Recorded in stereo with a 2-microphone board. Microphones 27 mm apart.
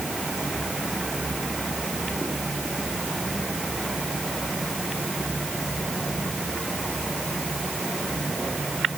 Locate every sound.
Only background noise.